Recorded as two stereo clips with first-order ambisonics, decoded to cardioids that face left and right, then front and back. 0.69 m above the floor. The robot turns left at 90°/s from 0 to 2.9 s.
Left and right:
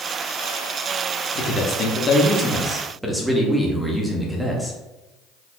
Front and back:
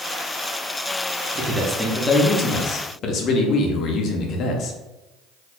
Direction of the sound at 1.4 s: 135° left.